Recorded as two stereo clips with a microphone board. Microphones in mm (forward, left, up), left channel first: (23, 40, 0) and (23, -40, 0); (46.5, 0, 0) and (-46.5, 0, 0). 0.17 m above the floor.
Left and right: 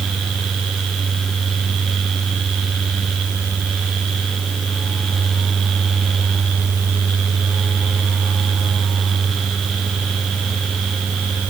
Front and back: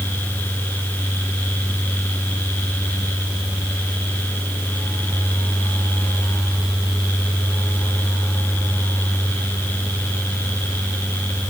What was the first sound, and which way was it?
Only background noise.